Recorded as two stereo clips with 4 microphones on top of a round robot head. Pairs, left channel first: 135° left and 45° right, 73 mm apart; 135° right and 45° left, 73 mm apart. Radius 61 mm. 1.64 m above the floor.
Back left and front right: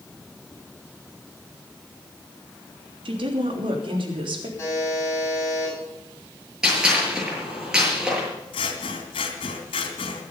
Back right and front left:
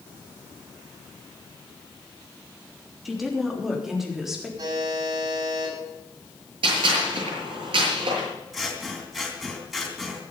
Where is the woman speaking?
45° right, 3 m; by 4.5 s 40° right, 4 m.